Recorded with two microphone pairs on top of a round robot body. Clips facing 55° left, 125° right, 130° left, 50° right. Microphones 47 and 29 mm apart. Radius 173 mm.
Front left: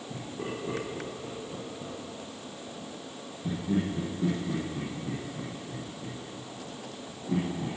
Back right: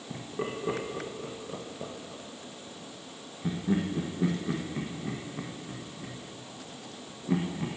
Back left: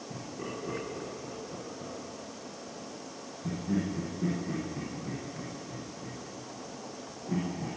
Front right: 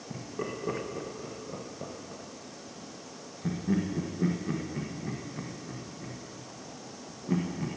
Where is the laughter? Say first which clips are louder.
Back right 2 dB, front right 4 dB; 95° right, 1.4 m.